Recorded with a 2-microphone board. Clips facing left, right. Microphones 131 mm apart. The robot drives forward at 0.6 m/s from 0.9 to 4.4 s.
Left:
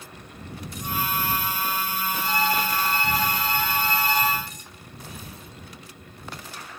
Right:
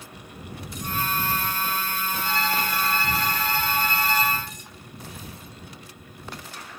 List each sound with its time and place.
2.2 s a violin: 40° left (ahead or behind), 8.5 m; by 4.3 s 45° left (ahead or behind), 7.5 m